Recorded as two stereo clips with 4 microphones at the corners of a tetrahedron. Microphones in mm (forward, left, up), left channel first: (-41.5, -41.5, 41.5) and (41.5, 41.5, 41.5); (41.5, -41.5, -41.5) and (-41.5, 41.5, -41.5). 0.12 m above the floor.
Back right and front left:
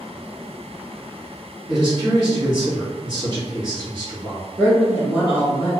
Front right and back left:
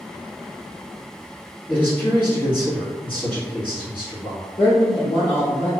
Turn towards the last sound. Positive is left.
turn(degrees=-10)